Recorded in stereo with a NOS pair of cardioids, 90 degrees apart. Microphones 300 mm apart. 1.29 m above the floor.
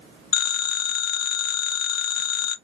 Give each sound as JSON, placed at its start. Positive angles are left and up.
{"t": 0.3, "sound": "a phone ringing", "azimuth_deg": 60, "distance_m": 0.7}